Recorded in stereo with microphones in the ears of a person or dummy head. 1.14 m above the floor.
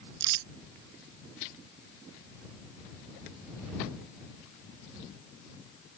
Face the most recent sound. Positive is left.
turn(degrees=-70)  # may be behind; listen again after turning